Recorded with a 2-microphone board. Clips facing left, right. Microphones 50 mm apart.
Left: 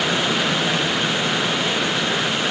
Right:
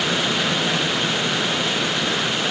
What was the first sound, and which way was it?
Only background noise.